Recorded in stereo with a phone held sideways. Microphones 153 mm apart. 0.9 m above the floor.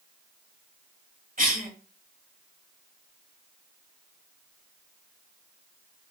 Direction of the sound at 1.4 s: 60° right (ahead or behind).